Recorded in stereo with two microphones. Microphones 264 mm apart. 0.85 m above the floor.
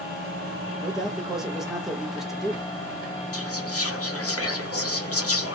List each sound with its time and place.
0.8 s a man speaking: centre (ahead or behind), 1.2 m
3.3 s whispering: 65° left (ahead or behind), 1.1 m